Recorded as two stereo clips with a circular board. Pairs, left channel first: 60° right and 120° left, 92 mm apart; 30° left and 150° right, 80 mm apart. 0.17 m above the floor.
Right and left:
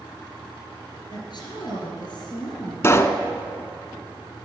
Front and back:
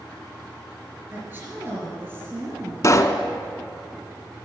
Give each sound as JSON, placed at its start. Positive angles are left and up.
{"t": 1.1, "sound": "a woman speaking", "azimuth_deg": -90, "distance_m": 3.0}
{"t": 2.8, "sound": "a pop", "azimuth_deg": -5, "distance_m": 0.5}